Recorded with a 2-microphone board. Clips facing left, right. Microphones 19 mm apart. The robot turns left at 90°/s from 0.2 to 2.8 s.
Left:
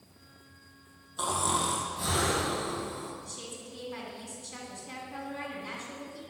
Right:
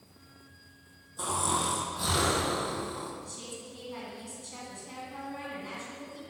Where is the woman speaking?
10° left (ahead or behind), 1.9 m.